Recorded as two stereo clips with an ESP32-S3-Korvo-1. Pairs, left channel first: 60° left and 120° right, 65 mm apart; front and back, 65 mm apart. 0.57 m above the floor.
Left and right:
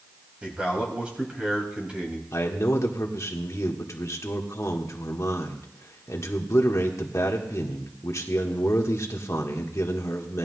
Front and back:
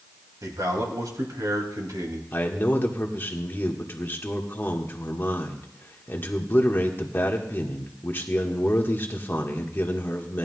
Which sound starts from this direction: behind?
A man speaking, at 0.4 s.